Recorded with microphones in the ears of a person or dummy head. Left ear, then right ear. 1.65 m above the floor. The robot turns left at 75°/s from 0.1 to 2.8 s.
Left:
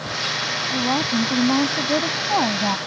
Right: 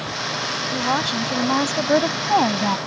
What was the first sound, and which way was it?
A woman speaking, 45° right.